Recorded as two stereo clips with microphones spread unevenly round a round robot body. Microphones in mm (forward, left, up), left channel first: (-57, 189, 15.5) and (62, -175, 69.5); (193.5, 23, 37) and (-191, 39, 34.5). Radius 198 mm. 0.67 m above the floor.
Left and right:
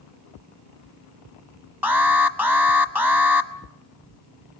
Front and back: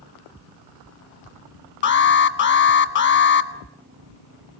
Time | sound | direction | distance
1.8 | an alarm | 25° left | 1.1 m